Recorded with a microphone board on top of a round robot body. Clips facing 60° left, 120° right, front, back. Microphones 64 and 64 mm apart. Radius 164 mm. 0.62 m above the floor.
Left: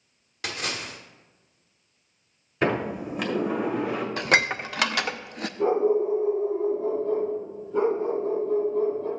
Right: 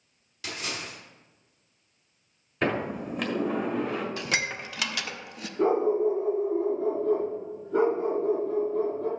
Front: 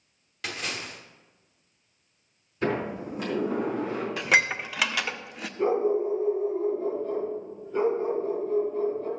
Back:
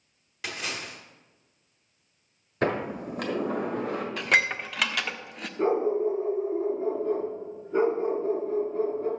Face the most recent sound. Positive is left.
turn(degrees=-125)